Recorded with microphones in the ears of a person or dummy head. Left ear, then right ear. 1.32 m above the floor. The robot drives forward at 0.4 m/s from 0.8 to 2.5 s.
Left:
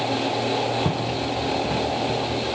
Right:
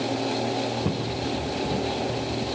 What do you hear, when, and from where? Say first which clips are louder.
0.8 s footsteps: left 3 dB; 65° left (ahead or behind), 7 m; by 1.8 s 60° left (ahead or behind), 7 m